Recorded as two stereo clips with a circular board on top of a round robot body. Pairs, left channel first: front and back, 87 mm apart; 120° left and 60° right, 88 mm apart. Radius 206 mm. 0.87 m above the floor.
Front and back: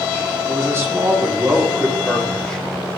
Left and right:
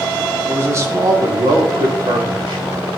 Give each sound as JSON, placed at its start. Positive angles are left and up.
{"t": 0.5, "sound": "a man speaking", "azimuth_deg": -125, "distance_m": 1.7}